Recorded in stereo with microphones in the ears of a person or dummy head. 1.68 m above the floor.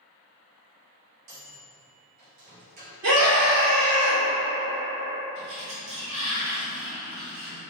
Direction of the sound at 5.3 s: 65° right (ahead or behind).